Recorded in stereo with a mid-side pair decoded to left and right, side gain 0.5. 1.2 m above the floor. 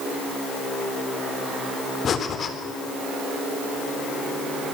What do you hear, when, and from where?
2.0 s breathing: 50° left, 4 m